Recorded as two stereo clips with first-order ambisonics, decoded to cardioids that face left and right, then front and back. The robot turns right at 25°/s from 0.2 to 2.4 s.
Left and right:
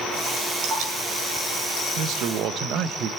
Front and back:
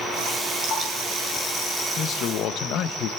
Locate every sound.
0.6 s dripping: 115° right, 7 m; by 0.9 s 110° right, 7 m
2.0 s a man speaking: 55° right, 0.7 m; by 3.1 s 45° right, 0.7 m